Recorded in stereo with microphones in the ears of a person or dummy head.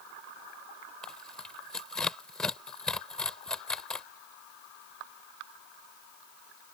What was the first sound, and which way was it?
Tearing paper, 10° left (ahead or behind).